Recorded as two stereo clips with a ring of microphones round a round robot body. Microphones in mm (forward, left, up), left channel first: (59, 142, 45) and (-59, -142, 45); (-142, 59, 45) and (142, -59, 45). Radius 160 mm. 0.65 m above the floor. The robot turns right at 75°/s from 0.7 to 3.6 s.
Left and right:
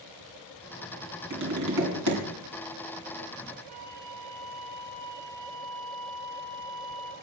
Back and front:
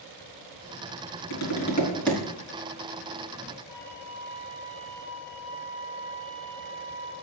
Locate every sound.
1.3 s tapping: 175° right, 4 m; by 2.2 s 105° right, 4 m
3.7 s a flute: 95° right, 4 m